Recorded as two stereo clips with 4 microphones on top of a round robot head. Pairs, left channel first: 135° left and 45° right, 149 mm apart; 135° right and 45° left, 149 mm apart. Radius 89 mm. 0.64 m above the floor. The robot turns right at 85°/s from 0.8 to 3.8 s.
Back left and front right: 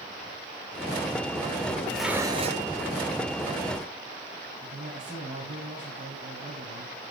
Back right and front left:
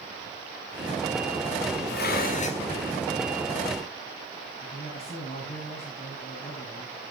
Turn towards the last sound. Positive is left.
turn(degrees=-110)